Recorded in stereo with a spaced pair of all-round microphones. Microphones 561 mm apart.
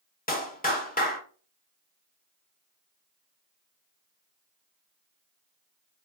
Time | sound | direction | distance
0.3 | a clap | 15° left (ahead or behind) | 0.8 m